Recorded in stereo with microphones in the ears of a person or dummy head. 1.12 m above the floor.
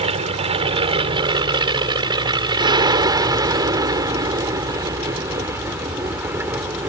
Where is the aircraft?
30° right (ahead or behind); by 6.9 s 10° right (ahead or behind).